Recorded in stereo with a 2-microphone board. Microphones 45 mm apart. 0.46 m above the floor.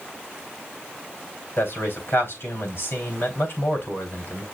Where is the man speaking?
60° left (ahead or behind), 3.5 m.